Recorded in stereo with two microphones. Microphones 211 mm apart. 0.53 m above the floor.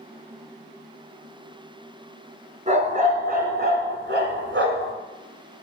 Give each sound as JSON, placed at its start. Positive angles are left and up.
{"t": 2.7, "sound": "a dog barking", "side_deg": -35, "distance_m": 2.0}